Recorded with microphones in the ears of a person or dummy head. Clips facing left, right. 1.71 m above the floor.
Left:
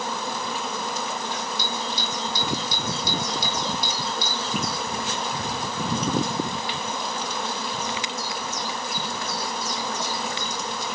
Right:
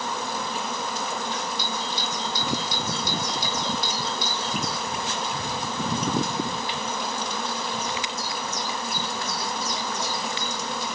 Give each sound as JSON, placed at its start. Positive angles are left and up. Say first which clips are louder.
{"t": 1.6, "sound": "a doorbell", "louder": "left 1 dB", "side_deg": 85, "distance_m": 3.5}